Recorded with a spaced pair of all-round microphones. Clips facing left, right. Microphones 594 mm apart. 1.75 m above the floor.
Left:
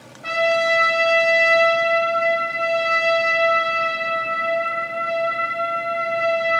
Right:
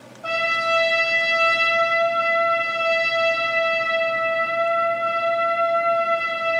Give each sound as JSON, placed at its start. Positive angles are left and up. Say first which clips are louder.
{"t": 0.2, "sound": "a trumpet", "louder": "left 7 dB", "side_deg": 50, "distance_m": 0.9}